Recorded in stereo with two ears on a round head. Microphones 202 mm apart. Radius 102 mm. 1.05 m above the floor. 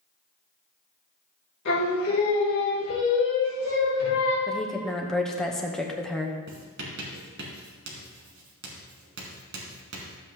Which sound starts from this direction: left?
Singing, at 1.6 s.